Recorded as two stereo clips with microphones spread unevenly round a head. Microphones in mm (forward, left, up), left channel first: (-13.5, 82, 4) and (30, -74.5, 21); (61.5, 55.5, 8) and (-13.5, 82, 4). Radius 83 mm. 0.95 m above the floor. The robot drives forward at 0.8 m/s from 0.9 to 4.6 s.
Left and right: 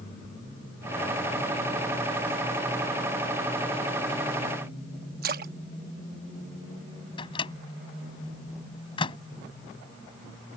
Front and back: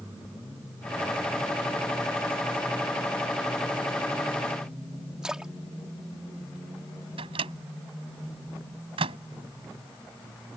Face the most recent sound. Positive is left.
turn(degrees=170)